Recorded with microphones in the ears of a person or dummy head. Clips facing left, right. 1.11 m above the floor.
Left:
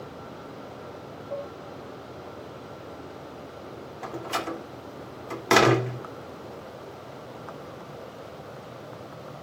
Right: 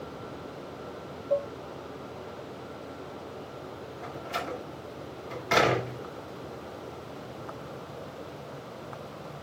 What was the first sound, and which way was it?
Dishes clattering, 50° right (ahead or behind).